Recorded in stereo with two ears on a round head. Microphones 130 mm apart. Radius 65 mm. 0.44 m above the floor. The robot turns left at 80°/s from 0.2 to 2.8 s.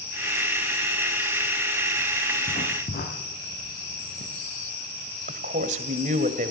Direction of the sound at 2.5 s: 30° left (ahead or behind).